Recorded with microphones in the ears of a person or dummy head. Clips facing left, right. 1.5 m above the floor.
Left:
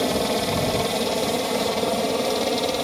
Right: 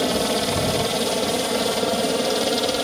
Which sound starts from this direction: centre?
A helicopter, at 0.0 s.